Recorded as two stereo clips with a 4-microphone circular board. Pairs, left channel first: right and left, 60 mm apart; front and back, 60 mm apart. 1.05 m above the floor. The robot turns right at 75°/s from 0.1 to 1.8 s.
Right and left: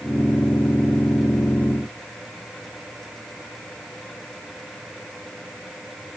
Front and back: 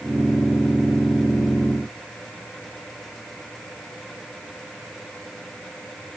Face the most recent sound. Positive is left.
No sound to turn to.